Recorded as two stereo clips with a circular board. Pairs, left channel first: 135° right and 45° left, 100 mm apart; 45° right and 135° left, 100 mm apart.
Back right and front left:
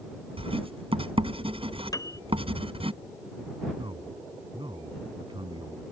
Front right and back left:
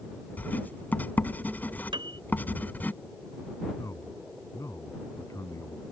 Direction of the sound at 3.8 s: 10° left.